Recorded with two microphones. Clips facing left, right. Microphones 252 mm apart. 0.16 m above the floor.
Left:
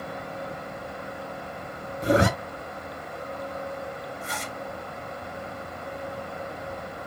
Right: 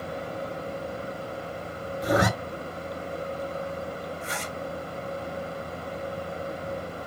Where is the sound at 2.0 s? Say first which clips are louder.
Left 3 dB; 30° left (ahead or behind), 0.7 m.